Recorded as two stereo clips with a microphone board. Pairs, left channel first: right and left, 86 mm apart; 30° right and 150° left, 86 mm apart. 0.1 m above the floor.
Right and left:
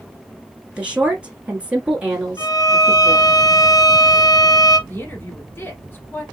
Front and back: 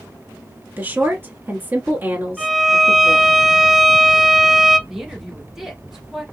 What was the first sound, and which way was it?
A woman speaking, 145° left.